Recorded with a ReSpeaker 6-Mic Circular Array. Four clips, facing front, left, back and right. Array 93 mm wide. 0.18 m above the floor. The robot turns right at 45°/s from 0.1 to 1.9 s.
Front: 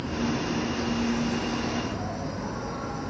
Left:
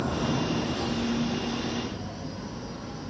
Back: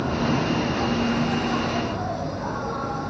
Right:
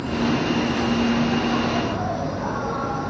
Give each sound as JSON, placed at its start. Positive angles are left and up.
{"t": 0.0, "sound": "an insect", "azimuth_deg": 165}